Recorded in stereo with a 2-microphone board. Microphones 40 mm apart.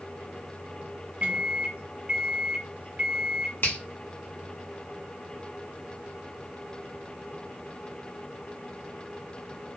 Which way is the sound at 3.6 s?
60° left (ahead or behind).